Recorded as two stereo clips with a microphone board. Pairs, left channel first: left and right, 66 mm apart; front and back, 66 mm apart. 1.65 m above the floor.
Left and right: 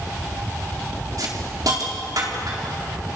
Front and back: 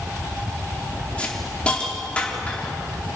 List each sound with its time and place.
1.2 s a hiss: 70° right, 4 m